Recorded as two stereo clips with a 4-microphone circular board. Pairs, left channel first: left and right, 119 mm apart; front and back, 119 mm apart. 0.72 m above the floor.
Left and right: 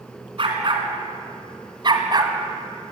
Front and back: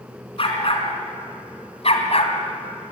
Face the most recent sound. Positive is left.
turn(degrees=-35)